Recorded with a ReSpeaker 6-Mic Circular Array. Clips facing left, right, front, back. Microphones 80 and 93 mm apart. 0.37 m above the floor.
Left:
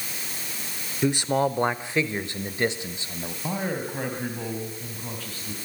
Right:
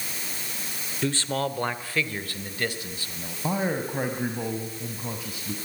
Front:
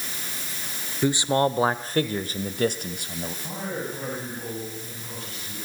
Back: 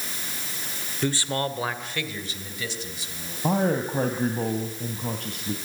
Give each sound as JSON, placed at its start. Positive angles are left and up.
{"t": 1.0, "sound": "a man speaking", "azimuth_deg": 50, "distance_m": 0.9}
{"t": 3.4, "sound": "a man speaking", "azimuth_deg": -165, "distance_m": 2.5}